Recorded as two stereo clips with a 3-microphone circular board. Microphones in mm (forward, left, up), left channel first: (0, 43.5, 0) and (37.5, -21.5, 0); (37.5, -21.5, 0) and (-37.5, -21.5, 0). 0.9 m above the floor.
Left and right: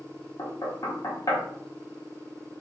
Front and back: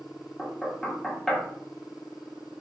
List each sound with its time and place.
0.4 s knocking: 85° left, 1.2 m